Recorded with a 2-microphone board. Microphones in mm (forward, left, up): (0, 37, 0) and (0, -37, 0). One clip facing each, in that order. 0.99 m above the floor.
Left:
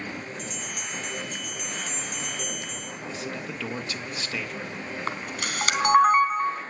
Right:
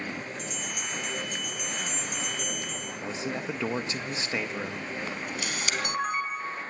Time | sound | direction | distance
0.4 | a bell | 5° right (ahead or behind) | 6 m
3.0 | a man speaking | 25° right (ahead or behind) | 1.5 m
5.1 | a camera shutter | 55° left (ahead or behind) | 3 m